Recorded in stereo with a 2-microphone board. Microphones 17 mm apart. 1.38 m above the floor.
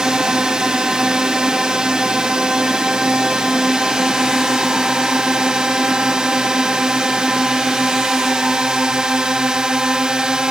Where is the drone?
60° right (ahead or behind).